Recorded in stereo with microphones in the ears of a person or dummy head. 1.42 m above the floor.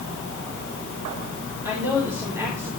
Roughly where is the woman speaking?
Centre.